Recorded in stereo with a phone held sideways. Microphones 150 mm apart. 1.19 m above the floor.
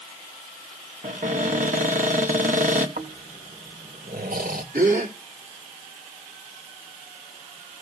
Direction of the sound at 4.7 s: 75° right (ahead or behind).